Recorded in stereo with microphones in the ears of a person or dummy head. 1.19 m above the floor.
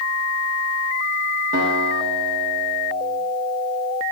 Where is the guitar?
55° right (ahead or behind), 1.8 m.